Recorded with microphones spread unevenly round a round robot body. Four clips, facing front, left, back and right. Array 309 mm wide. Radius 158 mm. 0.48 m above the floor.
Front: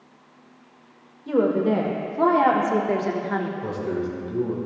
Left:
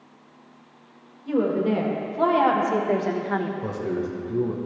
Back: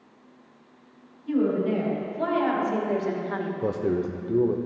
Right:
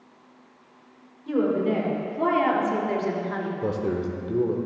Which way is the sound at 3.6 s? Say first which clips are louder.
Right 1 dB, back 1 dB; 150° right.